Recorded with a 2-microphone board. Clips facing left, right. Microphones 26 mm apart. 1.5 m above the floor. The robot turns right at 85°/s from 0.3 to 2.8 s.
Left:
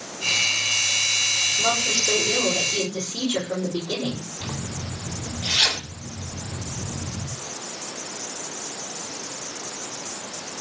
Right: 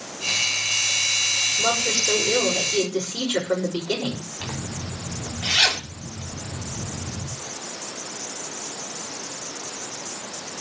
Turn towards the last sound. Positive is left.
turn(degrees=-55)  # may be behind; listen again after turning